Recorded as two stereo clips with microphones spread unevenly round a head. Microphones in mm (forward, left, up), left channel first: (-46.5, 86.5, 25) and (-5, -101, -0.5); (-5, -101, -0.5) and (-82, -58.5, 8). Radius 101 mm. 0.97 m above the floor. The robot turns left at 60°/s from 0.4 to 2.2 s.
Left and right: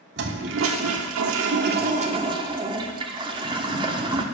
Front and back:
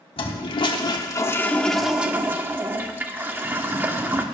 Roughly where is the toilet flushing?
Ahead right.